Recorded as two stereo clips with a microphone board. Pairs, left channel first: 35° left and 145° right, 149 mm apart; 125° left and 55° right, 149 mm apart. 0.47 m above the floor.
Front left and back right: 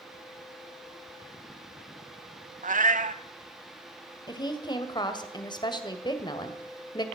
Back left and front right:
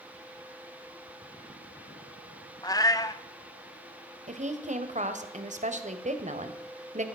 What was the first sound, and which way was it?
A cat meowing, 170° right.